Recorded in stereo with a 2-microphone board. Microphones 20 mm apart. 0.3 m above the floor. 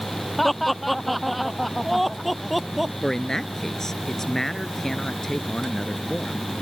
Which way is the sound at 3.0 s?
25° left (ahead or behind).